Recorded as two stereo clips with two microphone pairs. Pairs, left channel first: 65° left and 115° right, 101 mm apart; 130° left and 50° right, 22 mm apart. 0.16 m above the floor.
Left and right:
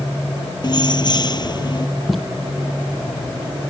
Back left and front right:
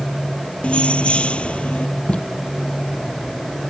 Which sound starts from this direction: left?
Keys jangling, at 0.6 s.